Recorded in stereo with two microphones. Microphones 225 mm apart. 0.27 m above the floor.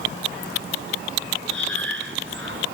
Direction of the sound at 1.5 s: 60° right (ahead or behind).